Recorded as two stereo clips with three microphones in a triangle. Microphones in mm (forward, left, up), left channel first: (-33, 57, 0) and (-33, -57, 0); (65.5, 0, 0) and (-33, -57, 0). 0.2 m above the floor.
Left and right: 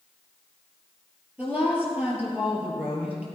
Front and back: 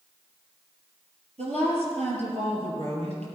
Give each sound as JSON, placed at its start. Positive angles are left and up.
{"t": 1.4, "sound": "a woman speaking", "azimuth_deg": -165, "distance_m": 3.5}